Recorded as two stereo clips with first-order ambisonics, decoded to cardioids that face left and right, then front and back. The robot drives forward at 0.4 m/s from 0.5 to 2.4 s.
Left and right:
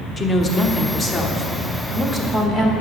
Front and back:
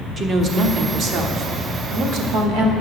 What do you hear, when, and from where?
0.2 s a woman speaking: 140° left, 0.9 m; by 2.7 s 165° left, 1.4 m